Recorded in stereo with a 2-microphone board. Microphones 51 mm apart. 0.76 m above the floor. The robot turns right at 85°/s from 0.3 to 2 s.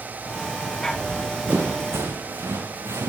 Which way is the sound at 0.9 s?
35° left (ahead or behind).